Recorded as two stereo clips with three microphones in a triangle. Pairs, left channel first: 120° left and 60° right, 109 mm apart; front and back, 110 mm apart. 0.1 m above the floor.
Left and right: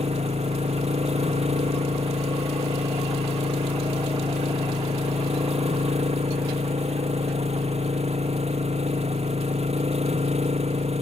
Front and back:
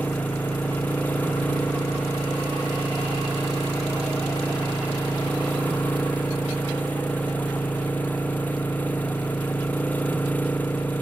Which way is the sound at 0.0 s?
75° right.